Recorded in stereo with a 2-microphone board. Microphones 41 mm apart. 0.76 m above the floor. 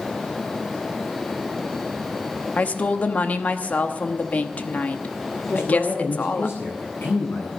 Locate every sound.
2.6 s a woman speaking: 40° left (ahead or behind), 1.0 m
5.5 s a man speaking: 70° left (ahead or behind), 8.5 m